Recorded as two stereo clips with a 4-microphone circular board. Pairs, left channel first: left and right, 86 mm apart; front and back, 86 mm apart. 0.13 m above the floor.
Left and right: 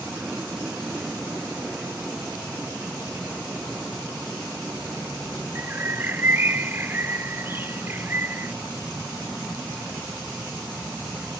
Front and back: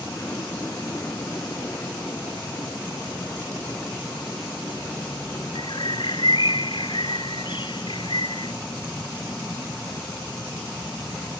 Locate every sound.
0.0 s an aircraft: 25° right
5.5 s a bird: 25° right